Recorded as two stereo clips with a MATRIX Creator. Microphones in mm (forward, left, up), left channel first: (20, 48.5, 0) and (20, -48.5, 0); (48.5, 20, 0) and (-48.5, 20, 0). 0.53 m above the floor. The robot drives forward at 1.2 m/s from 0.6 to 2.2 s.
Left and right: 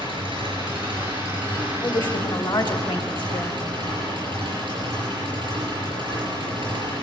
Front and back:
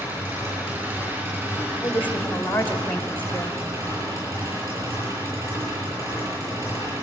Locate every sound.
0.0 s an engine running: 115° right, 9 m; by 7.0 s 125° right, 10 m
1.8 s a woman speaking: 60° left, 2.5 m; by 3.6 s 75° left, 2 m